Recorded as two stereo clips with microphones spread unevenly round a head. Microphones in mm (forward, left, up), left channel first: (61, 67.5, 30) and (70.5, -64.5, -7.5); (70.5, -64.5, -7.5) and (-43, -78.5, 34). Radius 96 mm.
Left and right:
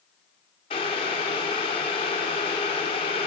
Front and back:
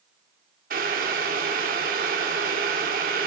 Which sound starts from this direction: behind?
Boiling, at 0.7 s.